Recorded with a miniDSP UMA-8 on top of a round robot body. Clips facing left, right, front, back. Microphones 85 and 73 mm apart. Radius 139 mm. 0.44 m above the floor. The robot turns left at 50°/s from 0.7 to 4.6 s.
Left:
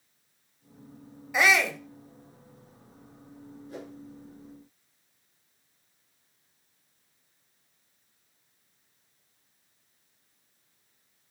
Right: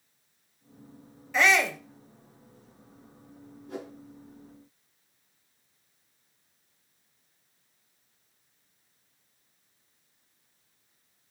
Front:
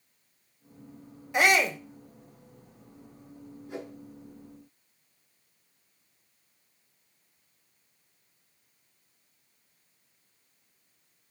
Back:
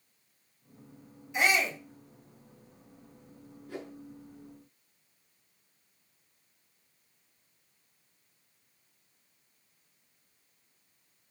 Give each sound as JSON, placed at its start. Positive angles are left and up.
{"t": 1.3, "sound": "a shout", "azimuth_deg": 15, "distance_m": 2.0}
{"t": 3.7, "sound": "a whoosh", "azimuth_deg": -70, "distance_m": 4.0}